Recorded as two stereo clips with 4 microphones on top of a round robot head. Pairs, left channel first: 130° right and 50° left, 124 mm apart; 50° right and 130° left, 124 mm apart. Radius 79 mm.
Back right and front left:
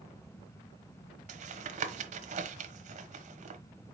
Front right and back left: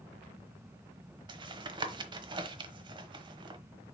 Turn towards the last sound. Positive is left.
turn(degrees=75)